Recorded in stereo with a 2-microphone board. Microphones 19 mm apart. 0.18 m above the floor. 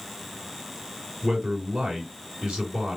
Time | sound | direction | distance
1.2 | a man speaking | 60° right (ahead or behind) | 3 m